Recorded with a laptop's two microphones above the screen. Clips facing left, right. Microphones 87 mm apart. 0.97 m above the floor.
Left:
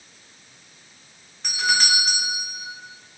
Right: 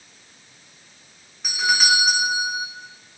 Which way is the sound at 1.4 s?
5° right (ahead or behind).